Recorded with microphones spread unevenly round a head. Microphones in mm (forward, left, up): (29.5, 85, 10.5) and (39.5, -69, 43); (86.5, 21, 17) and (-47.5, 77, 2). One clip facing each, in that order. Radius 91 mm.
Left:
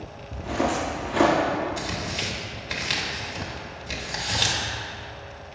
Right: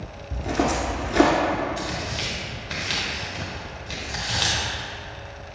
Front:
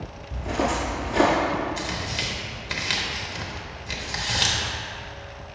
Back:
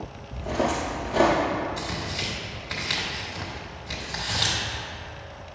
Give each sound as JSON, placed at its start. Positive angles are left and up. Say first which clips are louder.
{"t": 0.3, "sound": "footsteps", "louder": "right 2 dB, even", "azimuth_deg": -90, "distance_m": 2.0}
{"t": 1.8, "sound": "tearing paper", "louder": "right 1 dB, front 1 dB", "azimuth_deg": 10, "distance_m": 1.0}